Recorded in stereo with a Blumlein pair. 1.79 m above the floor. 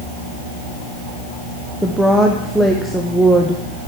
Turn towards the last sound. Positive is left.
turn(degrees=0)